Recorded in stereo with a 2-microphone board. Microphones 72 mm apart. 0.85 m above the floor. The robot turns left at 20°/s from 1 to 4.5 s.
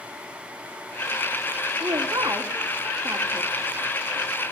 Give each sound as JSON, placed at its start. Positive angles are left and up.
{"t": 1.8, "sound": "a woman speaking", "side_deg": -70, "distance_m": 2.5}